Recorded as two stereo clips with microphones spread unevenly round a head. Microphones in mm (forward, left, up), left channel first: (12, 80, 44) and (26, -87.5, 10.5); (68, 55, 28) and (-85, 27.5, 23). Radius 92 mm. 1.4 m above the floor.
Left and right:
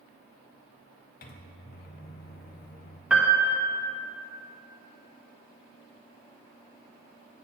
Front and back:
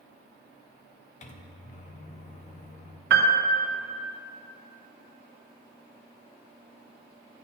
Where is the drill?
I don't hear a drill.